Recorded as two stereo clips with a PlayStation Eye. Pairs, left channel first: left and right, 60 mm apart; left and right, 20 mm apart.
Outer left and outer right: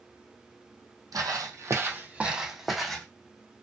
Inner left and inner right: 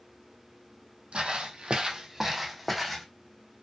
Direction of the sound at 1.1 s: 75° right (ahead or behind).